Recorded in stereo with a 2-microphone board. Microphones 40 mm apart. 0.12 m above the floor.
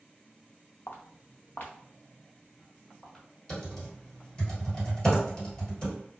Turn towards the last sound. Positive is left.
turn(degrees=20)  # may be behind; listen again after turning